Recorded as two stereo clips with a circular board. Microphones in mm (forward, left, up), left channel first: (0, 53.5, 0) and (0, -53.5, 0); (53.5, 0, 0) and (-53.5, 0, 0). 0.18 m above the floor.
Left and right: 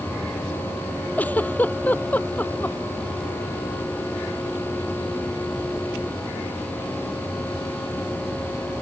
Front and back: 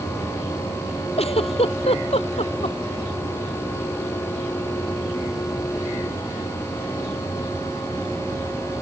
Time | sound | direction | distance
1.2 | a giggle | 15° left | ?